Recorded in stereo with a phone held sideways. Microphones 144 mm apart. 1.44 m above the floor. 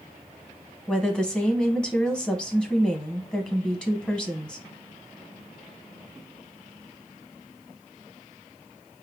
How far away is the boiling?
No boiling in this recording.